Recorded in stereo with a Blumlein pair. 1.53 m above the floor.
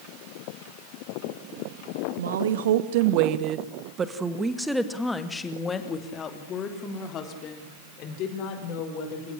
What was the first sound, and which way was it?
A woman speaking, 65° right.